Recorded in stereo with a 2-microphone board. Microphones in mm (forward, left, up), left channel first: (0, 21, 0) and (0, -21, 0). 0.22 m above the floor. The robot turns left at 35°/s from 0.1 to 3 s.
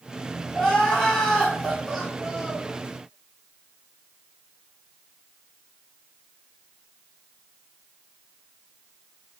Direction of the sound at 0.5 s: 15° left (ahead or behind).